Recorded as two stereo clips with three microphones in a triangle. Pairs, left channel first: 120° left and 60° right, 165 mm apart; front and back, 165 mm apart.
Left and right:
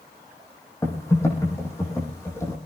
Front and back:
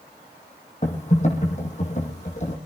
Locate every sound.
0.8 s typing on a keyboard: 45° left, 6.5 m